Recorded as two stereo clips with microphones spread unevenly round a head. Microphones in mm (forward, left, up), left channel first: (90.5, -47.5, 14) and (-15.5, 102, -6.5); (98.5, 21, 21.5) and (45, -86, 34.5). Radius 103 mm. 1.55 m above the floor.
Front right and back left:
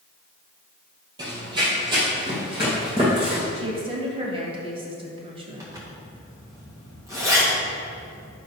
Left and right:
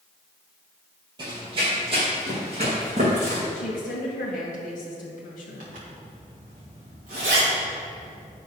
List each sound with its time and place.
1.2 s running footsteps: 165° right, 2 m
3.5 s a woman speaking: 75° left, 1.8 m
5.6 s a zipper: 155° right, 1.6 m